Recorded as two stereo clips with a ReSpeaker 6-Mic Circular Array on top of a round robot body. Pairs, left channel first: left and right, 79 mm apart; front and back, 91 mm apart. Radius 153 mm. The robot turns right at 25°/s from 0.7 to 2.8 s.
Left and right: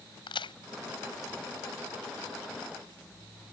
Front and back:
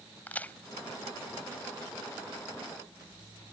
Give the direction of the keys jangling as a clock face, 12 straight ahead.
I don't hear keys jangling.